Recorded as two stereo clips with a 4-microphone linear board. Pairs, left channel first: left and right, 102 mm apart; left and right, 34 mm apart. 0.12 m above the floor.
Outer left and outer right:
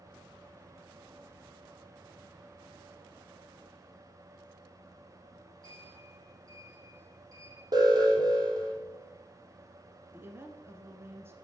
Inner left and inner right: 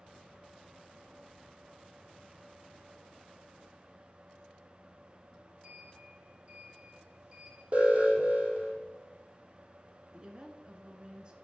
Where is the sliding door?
35° right (ahead or behind), 5.5 m.